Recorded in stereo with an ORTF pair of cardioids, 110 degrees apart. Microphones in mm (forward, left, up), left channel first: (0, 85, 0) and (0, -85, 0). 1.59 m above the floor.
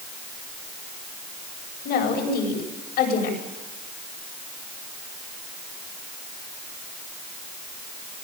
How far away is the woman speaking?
About 9 m.